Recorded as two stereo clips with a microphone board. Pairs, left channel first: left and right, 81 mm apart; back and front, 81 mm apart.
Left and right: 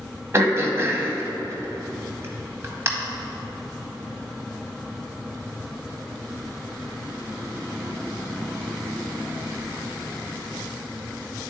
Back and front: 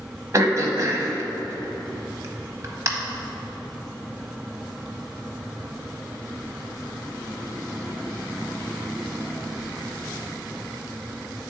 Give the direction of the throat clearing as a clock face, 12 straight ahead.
1 o'clock.